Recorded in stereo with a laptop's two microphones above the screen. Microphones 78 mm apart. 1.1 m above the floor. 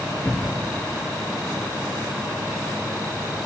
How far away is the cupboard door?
About 2.5 m.